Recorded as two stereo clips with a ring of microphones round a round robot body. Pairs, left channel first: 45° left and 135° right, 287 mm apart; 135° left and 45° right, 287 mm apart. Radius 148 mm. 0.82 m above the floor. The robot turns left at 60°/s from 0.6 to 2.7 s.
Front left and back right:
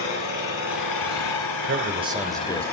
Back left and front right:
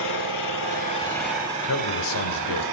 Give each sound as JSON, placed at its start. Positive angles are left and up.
{"t": 0.0, "sound": "an engine running", "azimuth_deg": 90, "distance_m": 8.0}
{"t": 1.6, "sound": "a man speaking", "azimuth_deg": 175, "distance_m": 2.5}